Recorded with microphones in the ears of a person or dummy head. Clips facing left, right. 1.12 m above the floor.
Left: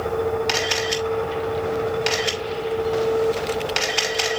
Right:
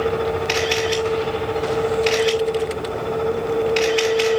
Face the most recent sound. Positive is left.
turn(degrees=70)  # may be behind; listen again after turning